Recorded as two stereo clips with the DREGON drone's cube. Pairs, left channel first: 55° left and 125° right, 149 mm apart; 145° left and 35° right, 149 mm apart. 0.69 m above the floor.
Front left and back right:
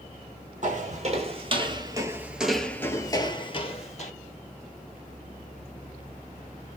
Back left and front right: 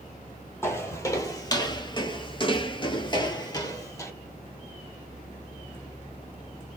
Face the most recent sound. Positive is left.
turn(degrees=80)